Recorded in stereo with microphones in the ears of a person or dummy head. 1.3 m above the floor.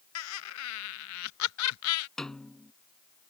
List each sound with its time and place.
0.1 s laughter: 80° left
2.2 s a snare drum: 5° right (ahead or behind)